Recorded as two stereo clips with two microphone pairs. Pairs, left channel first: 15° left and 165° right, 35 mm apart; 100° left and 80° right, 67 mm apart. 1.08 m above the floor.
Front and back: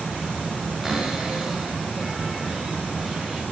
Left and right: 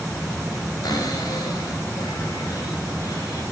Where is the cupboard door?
105° left, 5.5 m.